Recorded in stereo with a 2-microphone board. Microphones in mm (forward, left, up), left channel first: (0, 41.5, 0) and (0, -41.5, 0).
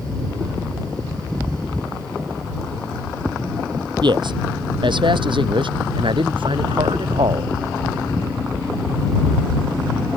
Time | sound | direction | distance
4.0 | a man speaking | 65° right (ahead or behind) | ?